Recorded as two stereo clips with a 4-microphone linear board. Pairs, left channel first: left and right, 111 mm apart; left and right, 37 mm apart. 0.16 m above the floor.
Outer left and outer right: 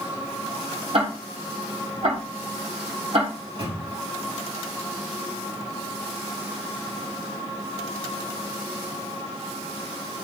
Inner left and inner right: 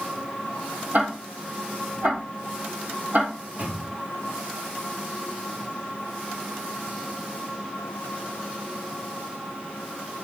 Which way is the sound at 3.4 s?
55° right (ahead or behind).